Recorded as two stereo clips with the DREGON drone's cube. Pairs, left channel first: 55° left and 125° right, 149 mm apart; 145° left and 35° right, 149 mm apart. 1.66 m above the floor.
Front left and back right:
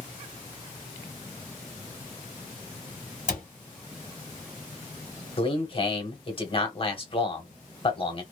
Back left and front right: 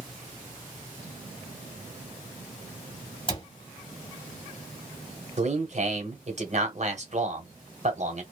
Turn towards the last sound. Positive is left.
turn(degrees=5)